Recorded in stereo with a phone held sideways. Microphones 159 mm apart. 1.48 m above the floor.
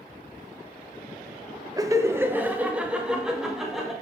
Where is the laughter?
20° right (ahead or behind), 0.7 m; by 3.9 s centre (ahead or behind), 1.7 m.